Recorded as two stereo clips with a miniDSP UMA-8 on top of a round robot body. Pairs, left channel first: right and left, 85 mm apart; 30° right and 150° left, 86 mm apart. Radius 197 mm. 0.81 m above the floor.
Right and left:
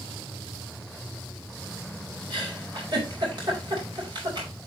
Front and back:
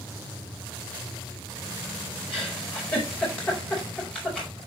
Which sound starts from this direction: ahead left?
A giggle, at 2.3 s.